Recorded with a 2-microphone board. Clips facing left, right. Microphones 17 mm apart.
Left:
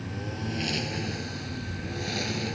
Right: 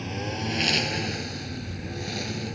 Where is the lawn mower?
40° right (ahead or behind); by 2.5 s 15° left (ahead or behind).